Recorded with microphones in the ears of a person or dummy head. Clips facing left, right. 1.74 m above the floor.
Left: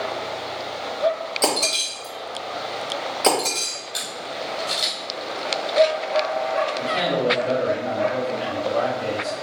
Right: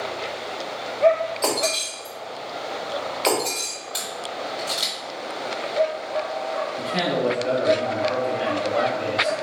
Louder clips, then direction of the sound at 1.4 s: Even; 45° left (ahead or behind).